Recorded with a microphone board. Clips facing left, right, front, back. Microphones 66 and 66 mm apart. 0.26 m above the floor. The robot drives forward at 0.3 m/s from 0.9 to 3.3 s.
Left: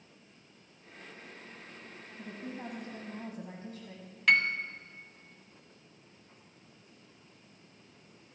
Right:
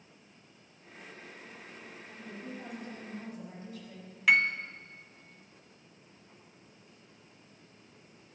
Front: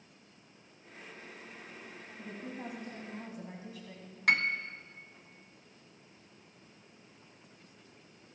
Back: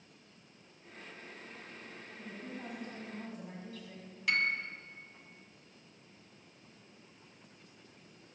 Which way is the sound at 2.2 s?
55° left.